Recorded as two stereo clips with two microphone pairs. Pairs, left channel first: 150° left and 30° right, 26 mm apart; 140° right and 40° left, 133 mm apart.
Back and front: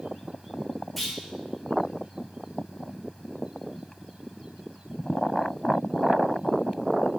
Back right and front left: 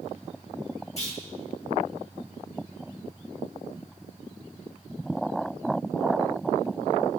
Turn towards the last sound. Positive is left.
turn(degrees=-125)